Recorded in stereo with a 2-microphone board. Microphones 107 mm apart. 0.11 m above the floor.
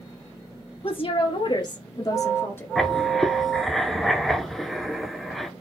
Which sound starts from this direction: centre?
Writing, at 2.8 s.